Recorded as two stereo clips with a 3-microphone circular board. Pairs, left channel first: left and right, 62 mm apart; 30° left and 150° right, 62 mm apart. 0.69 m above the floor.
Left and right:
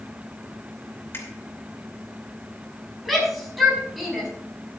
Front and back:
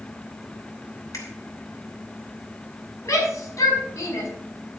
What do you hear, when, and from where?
1.1 s a finger snap: 45° left, 3 m
3.0 s a shout: straight ahead, 5 m